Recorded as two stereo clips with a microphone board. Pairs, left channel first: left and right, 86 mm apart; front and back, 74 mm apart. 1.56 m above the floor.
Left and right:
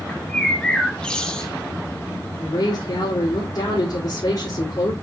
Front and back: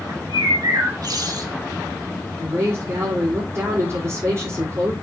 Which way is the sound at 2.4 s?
125° left.